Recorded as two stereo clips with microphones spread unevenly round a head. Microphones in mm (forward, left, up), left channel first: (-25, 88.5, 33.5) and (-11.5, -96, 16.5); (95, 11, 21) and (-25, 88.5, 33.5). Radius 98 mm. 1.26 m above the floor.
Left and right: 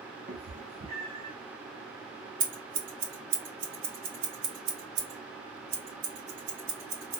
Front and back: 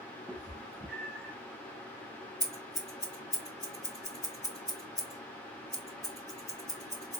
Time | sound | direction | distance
0.3 | a cat meowing | 130° right | 1.0 m
2.4 | scissors | 105° right | 2.5 m